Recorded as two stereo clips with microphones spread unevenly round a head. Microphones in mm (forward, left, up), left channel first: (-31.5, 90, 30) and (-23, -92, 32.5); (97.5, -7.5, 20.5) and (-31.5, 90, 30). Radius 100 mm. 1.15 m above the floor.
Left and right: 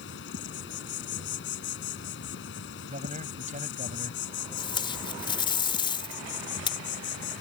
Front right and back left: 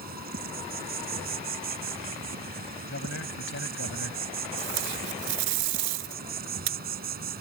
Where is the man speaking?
30° right.